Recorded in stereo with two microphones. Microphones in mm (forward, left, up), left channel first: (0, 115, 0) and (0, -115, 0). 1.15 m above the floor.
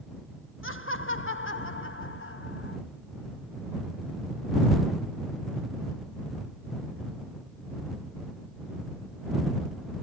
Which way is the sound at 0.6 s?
70° left (ahead or behind).